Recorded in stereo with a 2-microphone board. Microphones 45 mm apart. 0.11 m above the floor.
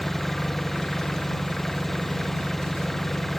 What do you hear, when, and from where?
0.0 s an engine running: 5° left (ahead or behind)